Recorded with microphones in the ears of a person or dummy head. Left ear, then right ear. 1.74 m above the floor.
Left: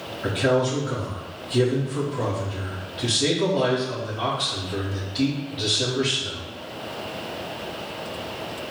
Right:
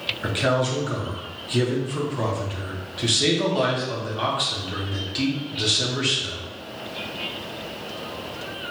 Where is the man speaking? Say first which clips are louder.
Left 2 dB; 35° right (ahead or behind), 1.0 m.